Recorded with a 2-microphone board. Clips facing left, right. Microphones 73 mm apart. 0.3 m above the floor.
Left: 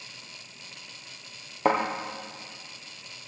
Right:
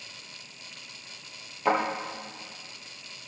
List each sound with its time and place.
1.6 s a thud: 50° left (ahead or behind), 3 m